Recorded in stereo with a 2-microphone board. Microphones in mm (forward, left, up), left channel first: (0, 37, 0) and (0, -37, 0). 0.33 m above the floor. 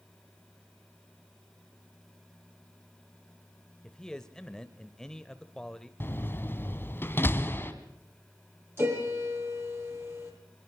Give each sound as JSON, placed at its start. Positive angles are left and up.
{"t": 3.8, "sound": "a man speaking", "side_deg": 10, "distance_m": 1.0}
{"t": 6.0, "sound": "a door slam", "side_deg": 30, "distance_m": 1.9}
{"t": 8.8, "sound": "a piano", "side_deg": -30, "distance_m": 7.5}